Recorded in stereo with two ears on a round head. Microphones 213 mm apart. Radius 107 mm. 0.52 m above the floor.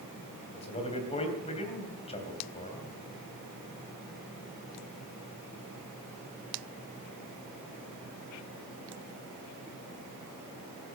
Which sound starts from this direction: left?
A man speaking, at 0.5 s.